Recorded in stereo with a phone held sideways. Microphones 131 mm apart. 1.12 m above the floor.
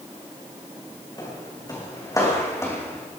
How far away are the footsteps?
About 5.5 m.